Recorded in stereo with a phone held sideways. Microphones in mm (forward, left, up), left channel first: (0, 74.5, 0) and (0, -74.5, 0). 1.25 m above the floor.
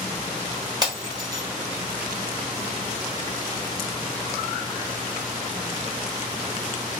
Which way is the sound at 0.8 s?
25° right (ahead or behind).